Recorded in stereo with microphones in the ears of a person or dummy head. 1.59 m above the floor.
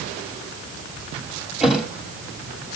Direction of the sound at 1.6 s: 5° right (ahead or behind).